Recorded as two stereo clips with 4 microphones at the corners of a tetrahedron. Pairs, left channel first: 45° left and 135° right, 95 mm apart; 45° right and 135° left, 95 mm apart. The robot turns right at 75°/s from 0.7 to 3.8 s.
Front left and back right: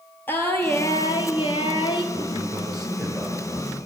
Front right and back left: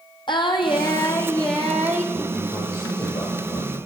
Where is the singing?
20° right, 0.9 m; by 2.0 s 80° left, 0.9 m.